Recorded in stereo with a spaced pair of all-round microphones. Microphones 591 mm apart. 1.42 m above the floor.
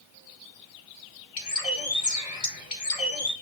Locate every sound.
1.4 s a bird: 70° left (ahead or behind), 1.5 m